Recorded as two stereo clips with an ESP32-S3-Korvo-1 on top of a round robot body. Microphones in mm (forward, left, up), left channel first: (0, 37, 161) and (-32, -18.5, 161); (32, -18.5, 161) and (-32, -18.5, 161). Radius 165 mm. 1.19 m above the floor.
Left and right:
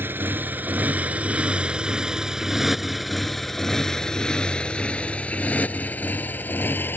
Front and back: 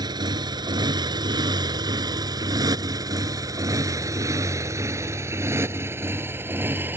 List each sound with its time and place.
0.0 s a motorcycle: straight behind; by 7.0 s 120° left